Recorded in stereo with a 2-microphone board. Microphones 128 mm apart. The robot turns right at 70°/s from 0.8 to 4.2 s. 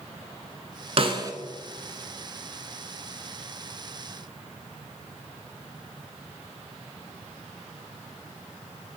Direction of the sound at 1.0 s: 50° right (ahead or behind).